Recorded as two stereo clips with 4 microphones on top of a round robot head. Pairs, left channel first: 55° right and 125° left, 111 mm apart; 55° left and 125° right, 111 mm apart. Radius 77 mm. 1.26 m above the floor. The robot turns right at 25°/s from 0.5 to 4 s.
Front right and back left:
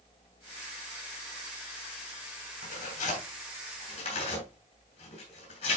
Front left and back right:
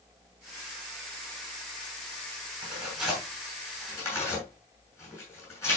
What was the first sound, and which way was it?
Tearing paper, 50° right.